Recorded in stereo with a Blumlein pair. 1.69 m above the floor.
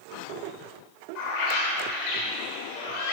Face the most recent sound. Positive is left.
turn(degrees=50)